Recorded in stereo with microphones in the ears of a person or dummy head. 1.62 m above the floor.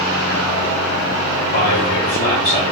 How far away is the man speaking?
About 1.0 m.